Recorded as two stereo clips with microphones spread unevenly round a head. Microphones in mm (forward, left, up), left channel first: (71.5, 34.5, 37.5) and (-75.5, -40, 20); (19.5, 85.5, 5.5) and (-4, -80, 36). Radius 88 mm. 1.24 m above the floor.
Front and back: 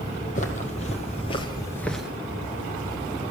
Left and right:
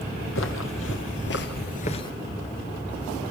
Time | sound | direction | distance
0.3 | footsteps | 70° left | 3 m